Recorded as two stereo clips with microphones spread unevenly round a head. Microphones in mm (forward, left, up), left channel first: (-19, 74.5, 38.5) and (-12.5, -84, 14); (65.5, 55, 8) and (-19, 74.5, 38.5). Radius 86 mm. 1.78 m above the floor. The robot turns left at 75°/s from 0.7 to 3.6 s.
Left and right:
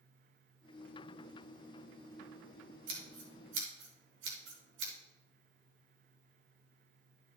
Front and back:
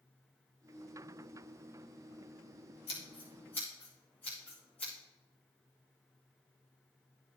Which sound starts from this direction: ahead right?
Scissors, at 2.9 s.